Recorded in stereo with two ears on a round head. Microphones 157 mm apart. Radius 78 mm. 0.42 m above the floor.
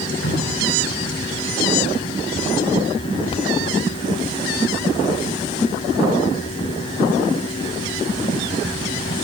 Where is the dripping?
75° left (ahead or behind), 8 m.